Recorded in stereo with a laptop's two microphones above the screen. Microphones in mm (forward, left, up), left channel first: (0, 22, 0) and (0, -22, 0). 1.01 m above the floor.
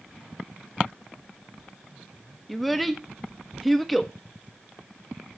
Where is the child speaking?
Centre (ahead or behind), 1.1 m.